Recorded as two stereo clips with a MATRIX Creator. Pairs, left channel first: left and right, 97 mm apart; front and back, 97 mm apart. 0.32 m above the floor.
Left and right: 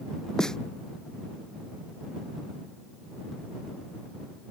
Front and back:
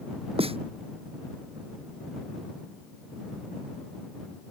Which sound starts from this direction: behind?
A snare drum, at 0.4 s.